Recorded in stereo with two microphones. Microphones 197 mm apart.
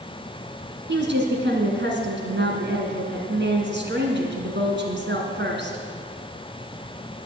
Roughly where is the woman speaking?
Right.